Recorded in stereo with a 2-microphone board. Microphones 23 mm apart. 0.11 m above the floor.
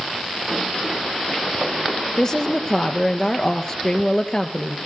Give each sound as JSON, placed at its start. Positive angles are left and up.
{"t": 2.2, "sound": "a woman speaking", "side_deg": 30, "distance_m": 1.7}